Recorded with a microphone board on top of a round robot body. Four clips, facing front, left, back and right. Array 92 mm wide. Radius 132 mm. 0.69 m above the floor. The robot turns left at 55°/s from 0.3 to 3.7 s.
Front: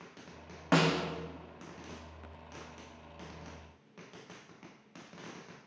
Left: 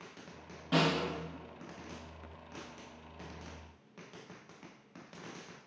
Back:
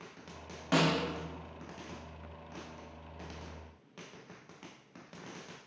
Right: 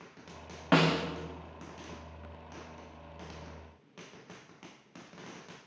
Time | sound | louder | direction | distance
0.7 | a snare drum | right 4 dB, front 1 dB | 60° right | 0.7 m